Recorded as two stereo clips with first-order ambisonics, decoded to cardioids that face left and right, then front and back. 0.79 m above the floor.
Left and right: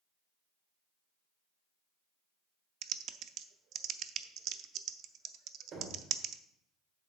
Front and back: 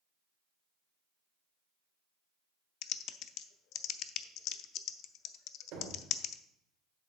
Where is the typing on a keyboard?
45° right, 0.5 m.